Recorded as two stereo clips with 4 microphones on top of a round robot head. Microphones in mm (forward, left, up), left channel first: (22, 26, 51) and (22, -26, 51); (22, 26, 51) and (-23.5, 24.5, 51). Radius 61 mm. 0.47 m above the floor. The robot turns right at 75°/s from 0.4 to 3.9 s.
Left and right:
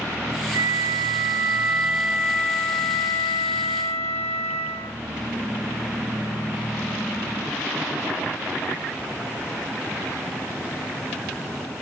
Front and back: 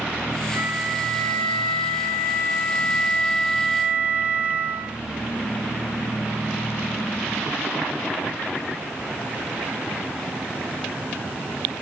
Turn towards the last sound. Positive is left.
turn(degrees=130)